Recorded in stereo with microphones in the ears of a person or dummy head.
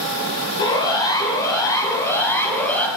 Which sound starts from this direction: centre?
A siren, at 0.6 s.